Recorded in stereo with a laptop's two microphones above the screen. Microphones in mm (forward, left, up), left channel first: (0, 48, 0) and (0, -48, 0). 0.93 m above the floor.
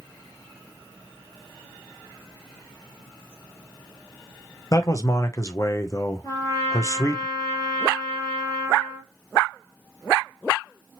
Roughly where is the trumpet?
Left.